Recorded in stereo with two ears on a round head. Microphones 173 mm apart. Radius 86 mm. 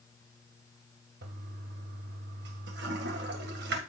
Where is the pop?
No pop in this recording.